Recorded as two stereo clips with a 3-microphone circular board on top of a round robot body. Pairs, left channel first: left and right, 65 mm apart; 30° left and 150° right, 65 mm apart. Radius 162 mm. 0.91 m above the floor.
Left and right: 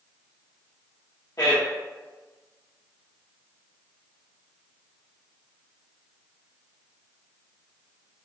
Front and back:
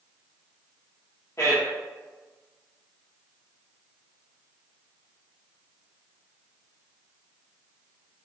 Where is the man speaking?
75° left, 0.9 m.